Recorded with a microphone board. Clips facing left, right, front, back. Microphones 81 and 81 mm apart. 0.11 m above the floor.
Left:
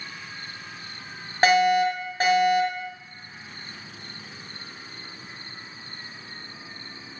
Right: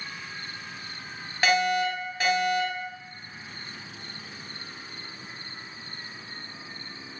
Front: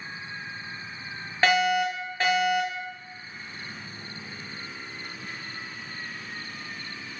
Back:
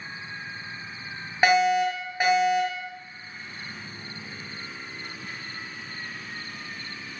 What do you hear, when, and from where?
1.4 s a fire alarm: 115° left, 3 m